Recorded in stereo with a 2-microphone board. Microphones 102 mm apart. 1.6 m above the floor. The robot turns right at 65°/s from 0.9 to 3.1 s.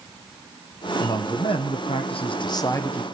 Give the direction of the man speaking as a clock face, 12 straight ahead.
11 o'clock.